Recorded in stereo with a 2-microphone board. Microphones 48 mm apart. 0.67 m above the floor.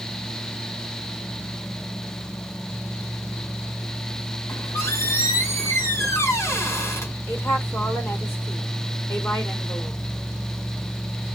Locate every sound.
4.5 s a squeak: 70° left (ahead or behind), 2.5 m
7.3 s a woman speaking: 50° left (ahead or behind), 2.5 m